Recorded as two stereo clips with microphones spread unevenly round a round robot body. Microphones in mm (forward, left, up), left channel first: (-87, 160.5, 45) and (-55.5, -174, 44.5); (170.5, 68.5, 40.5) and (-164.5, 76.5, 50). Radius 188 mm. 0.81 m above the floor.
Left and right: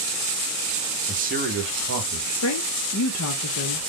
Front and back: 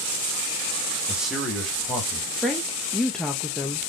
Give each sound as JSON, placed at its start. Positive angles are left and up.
{"t": 1.1, "sound": "a man speaking", "azimuth_deg": -95, "distance_m": 1.1}
{"t": 2.4, "sound": "a woman speaking", "azimuth_deg": 85, "distance_m": 0.7}